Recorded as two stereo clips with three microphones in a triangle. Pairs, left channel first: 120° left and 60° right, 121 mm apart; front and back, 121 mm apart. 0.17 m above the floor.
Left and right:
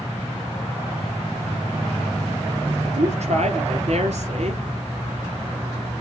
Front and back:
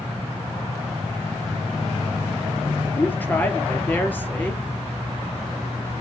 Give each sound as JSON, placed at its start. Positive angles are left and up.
{"t": 3.0, "sound": "a woman speaking", "azimuth_deg": -75, "distance_m": 2.5}